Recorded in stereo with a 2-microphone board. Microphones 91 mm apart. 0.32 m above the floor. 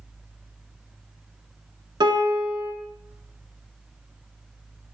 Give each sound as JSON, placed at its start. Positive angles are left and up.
{"t": 2.0, "sound": "a piano", "side_deg": -60, "distance_m": 0.5}